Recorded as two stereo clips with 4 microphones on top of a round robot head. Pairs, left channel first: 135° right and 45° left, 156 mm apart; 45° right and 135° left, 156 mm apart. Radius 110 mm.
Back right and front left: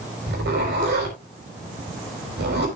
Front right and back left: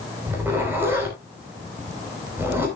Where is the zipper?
60° left, 4.5 m.